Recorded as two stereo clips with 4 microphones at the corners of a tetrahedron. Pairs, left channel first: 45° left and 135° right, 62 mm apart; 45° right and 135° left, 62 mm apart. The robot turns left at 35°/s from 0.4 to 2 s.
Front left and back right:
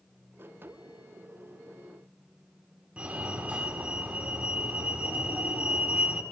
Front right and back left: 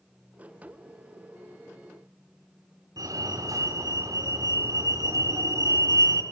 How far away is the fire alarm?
About 7.5 m.